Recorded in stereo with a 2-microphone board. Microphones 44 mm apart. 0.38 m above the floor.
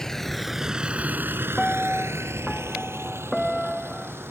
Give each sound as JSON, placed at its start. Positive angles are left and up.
{"t": 0.0, "sound": "a vehicle", "side_deg": 15}
{"t": 1.6, "sound": "a piano", "side_deg": -5}